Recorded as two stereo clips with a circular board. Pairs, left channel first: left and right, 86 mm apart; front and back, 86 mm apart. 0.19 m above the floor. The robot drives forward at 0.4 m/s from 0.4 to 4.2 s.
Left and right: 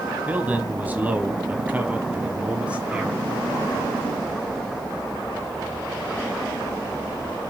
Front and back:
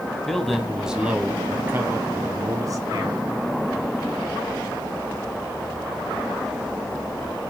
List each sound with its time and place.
0.3 s a man speaking: 80° right, 1.0 m; by 3.3 s 165° right, 1.5 m